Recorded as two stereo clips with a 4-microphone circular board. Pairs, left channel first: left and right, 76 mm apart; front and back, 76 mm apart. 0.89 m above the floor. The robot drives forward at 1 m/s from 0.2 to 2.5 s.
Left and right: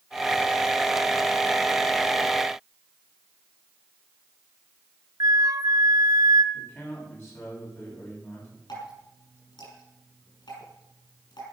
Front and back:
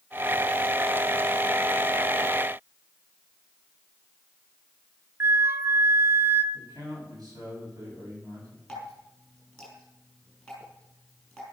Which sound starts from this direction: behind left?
A man speaking, at 6.5 s.